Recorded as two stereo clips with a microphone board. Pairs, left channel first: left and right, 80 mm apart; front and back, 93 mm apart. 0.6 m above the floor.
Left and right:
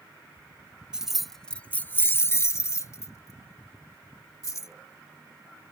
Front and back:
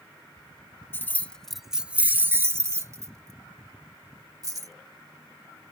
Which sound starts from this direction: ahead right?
Keys jangling, at 0.9 s.